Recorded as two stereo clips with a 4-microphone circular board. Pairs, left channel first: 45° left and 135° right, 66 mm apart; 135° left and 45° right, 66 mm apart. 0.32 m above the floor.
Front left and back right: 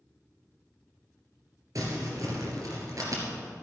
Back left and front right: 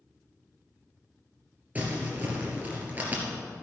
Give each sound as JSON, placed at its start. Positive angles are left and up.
{"t": 1.8, "sound": "crumpling", "azimuth_deg": -110, "distance_m": 2.5}